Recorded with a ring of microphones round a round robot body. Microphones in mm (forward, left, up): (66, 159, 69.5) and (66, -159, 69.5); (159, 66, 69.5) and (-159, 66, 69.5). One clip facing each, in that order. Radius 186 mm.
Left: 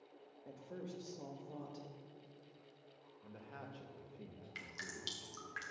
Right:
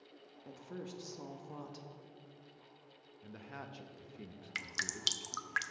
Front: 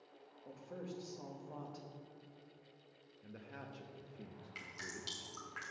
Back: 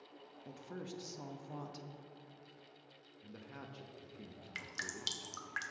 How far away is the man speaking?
About 0.8 m.